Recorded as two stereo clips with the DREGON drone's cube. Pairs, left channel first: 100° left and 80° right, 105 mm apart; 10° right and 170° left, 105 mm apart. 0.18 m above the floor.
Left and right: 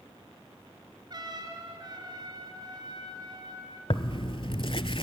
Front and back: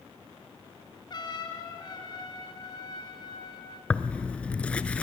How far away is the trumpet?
About 2.5 m.